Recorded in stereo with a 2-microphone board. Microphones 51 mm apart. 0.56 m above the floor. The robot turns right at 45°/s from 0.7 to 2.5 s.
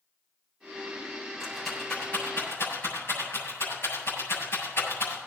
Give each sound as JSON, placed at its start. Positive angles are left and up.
{"t": 1.4, "sound": "a rattle", "side_deg": -10, "distance_m": 7.5}